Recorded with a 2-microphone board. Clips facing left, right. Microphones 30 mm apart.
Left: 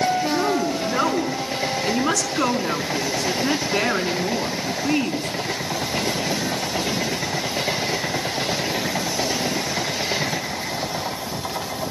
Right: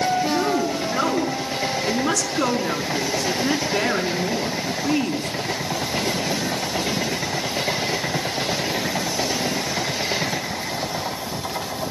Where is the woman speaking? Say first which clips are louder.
Even; 25° left (ahead or behind), 6 m.